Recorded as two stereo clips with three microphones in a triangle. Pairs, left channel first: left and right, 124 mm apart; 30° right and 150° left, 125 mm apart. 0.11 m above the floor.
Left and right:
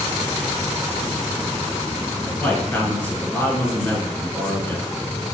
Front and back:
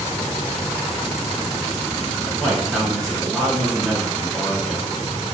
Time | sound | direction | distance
2.2 | a man speaking | 40° left | 1.7 m